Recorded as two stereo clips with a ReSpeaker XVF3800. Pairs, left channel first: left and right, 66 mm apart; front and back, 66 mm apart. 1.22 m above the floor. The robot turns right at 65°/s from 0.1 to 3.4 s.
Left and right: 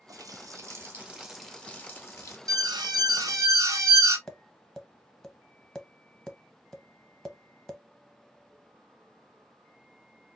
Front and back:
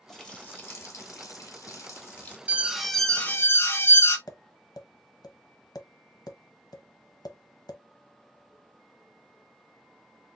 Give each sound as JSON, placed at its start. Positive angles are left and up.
{"t": 0.1, "sound": "a running tap", "azimuth_deg": -85, "distance_m": 0.8}
{"t": 2.5, "sound": "an alarm", "azimuth_deg": -115, "distance_m": 0.9}
{"t": 4.3, "sound": "tapping", "azimuth_deg": 5, "distance_m": 0.9}